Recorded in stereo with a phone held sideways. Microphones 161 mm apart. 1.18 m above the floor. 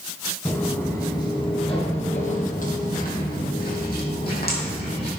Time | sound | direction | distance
0.5 | footsteps | 10° left (ahead or behind) | 2.5 m